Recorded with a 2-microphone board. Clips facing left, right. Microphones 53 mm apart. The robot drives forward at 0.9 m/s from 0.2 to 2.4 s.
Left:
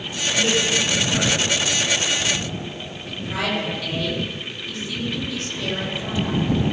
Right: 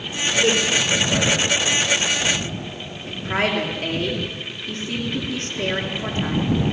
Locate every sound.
0.3 s a man speaking: 30° right (ahead or behind), 7 m; by 1.9 s 40° right (ahead or behind), 5.5 m
3.1 s a woman speaking: 40° right (ahead or behind), 5 m